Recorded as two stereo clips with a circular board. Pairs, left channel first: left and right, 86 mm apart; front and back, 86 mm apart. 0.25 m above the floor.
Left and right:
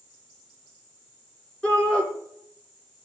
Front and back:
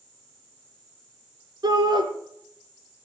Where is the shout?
165° left, 2.5 m.